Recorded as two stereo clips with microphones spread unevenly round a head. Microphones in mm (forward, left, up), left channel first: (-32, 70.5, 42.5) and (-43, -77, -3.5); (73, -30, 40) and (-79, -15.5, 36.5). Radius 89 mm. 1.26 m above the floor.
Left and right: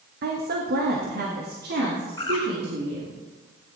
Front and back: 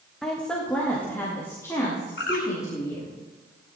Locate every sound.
0.2 s a woman speaking: 95° right, 1.6 m; by 3.1 s 70° right, 3.5 m
2.2 s a bird: 15° left, 3 m